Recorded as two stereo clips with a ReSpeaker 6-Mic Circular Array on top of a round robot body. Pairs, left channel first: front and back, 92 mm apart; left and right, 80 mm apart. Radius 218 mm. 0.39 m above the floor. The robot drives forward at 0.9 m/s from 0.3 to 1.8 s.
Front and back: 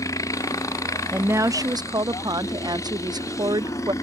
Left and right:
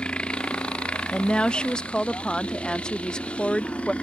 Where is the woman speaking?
145° left; by 3.9 s 165° left.